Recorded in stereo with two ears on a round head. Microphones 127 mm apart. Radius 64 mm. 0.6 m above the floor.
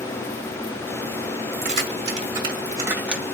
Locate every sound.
1.6 s keys jangling: 50° right (ahead or behind), 1.3 m; by 3.4 s 5° left (ahead or behind), 0.7 m